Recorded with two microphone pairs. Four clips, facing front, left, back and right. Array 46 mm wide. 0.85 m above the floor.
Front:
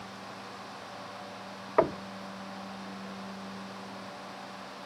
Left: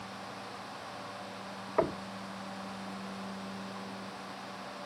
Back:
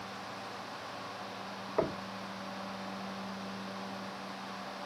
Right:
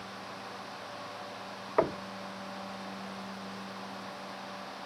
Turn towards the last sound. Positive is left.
turn(degrees=-25)